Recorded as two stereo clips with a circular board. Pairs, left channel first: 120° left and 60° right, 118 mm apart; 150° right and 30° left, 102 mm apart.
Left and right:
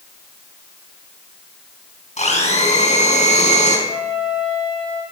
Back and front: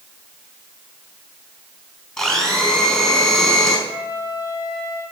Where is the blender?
130° left, 4.5 m.